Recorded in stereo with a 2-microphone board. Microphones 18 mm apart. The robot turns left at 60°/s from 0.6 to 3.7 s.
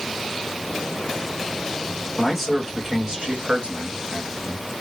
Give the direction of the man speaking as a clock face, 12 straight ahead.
12 o'clock.